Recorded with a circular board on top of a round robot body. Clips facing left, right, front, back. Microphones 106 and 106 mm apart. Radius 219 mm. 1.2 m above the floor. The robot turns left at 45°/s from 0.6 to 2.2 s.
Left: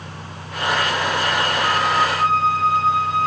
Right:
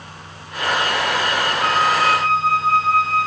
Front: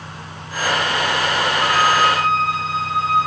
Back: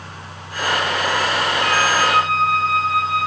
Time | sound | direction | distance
1.6 | a flute | 65° right | 3 m